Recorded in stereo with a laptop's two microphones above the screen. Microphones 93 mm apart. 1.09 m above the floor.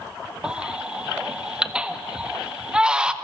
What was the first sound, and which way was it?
A baby crying, 10° right (ahead or behind).